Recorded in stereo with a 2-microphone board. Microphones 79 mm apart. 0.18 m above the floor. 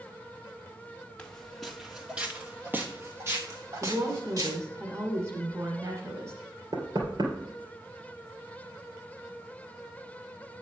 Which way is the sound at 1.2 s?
15° left (ahead or behind).